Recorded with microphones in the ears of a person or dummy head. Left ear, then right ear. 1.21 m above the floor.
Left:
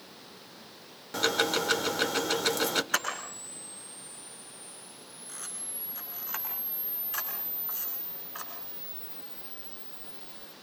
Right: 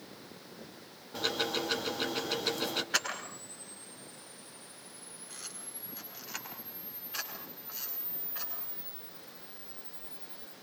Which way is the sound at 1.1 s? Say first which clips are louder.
Left 5 dB; 75° left (ahead or behind).